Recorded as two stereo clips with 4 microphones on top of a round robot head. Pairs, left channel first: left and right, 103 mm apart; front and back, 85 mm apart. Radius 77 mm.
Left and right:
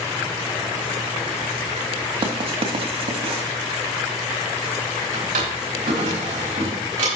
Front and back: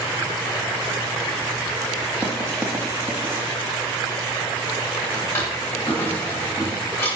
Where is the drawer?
70° right, 4 m.